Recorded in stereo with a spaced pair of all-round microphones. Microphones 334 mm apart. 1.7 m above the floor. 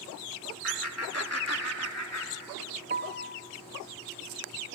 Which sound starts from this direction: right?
A piano, at 2.9 s.